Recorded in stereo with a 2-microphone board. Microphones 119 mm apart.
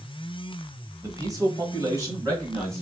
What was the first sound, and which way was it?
A man speaking, 30° right (ahead or behind).